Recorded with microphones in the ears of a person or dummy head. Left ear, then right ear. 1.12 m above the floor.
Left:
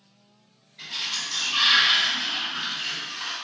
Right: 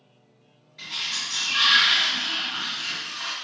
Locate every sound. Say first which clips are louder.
0.8 s a sliding door: right 1 dB; 35° right (ahead or behind), 1.8 m